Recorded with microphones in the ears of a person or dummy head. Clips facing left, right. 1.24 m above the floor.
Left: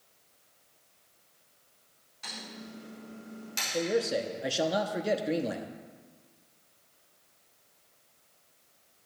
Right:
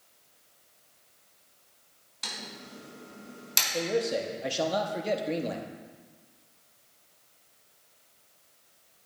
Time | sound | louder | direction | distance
2.2 | typing on a keyboard | even | 80° right | 4 m
3.7 | a man speaking | even | 10° left (ahead or behind) | 0.6 m